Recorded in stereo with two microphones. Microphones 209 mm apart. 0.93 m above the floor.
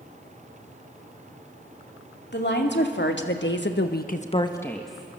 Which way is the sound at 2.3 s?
60° left (ahead or behind).